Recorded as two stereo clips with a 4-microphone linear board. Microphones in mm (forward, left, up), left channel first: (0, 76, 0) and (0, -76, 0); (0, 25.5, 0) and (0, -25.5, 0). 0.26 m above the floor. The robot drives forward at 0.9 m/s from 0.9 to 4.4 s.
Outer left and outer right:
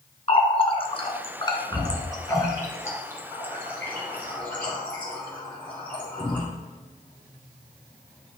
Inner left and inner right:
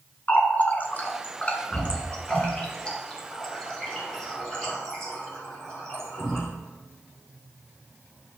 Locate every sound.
0.3 s a running tap: 40° left (ahead or behind), 1.3 m; by 6.4 s 10° left (ahead or behind), 4 m